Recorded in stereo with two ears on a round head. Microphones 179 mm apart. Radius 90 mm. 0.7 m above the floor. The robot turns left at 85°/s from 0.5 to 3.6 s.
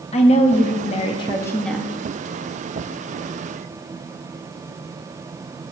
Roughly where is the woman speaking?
Left.